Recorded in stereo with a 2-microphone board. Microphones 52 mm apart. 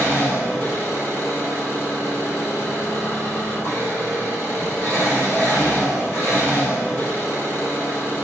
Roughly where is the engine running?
Left.